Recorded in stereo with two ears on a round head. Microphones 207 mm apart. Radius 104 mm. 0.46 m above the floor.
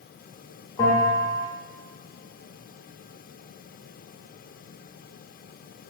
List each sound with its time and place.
0.8 s a bell: 15° left (ahead or behind), 1.1 m